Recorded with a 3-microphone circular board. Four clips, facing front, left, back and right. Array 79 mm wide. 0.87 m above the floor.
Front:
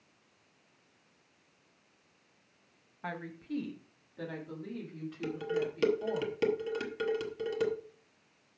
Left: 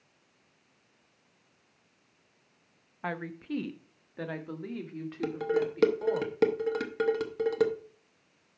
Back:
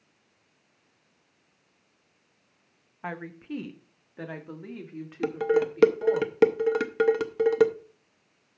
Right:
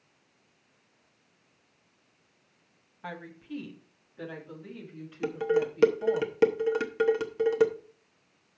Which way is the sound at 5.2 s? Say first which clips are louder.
Right 2 dB, back 10 dB; straight behind.